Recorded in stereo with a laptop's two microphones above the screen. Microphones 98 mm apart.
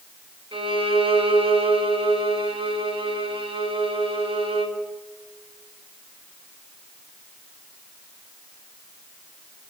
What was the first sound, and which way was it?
A violin, 65° right (ahead or behind).